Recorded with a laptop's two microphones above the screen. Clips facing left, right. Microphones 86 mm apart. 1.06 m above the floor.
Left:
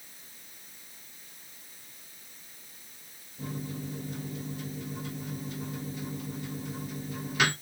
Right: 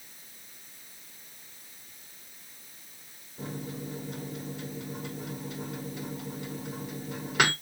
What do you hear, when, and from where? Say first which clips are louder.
3.4 s a microwave: even; 65° right (ahead or behind), 3 m